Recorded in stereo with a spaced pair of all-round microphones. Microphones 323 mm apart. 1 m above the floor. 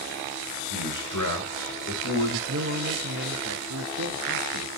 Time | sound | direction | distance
0.7 | a man speaking | 70° left (ahead or behind) | 2 m
2.5 | a man speaking | 55° right (ahead or behind) | 1.0 m